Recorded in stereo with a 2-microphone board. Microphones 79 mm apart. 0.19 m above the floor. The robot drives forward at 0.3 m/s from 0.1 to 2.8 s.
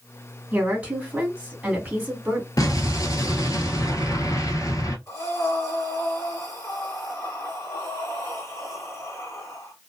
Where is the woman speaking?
20° right (ahead or behind), 1.5 m; by 2.5 s 15° right (ahead or behind), 1.7 m.